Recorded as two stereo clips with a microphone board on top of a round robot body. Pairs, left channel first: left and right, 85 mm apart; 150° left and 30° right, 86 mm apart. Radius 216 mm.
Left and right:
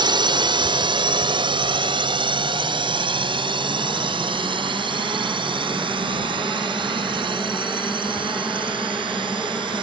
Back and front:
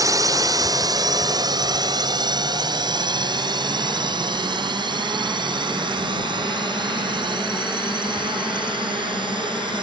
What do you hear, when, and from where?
0.0 s a drone: 75° right; by 9.8 s 60° right